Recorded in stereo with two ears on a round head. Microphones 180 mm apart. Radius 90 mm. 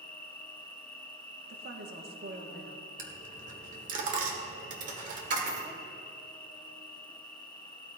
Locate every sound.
0.0 s an insect: 10° left (ahead or behind), 0.7 m
1.5 s a woman speaking: 50° right (ahead or behind), 1.5 m
3.0 s a dropped coin: 40° right (ahead or behind), 1.6 m